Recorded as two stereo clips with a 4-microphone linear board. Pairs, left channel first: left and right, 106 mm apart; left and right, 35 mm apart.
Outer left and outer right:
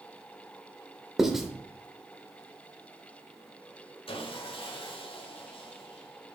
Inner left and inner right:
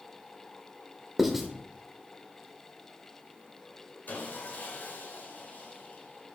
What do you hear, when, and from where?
1.2 s writing: 5° right (ahead or behind), 0.9 m
4.1 s sawing: 60° left (ahead or behind), 1.6 m